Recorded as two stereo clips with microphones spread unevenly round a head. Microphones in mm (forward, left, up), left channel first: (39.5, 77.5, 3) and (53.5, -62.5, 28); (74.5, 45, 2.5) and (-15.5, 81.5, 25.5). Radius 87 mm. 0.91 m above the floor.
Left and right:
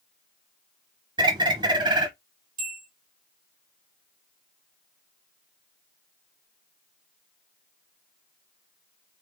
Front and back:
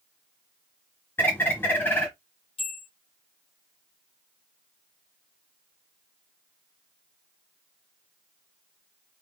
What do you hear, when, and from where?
1.2 s a bird: 105° right, 0.9 m
2.6 s a bell: 65° right, 3 m